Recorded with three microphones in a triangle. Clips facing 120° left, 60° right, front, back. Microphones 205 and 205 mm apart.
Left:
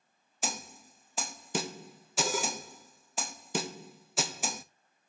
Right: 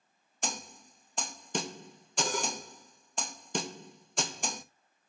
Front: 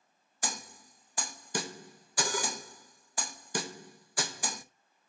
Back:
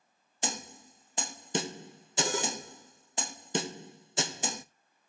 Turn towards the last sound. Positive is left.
turn(degrees=-160)